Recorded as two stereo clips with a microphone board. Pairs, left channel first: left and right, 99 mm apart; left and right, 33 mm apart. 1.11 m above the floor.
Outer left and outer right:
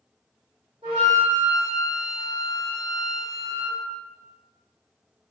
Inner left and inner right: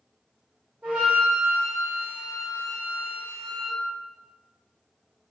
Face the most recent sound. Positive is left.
turn(degrees=-75)  # may be behind; listen again after turning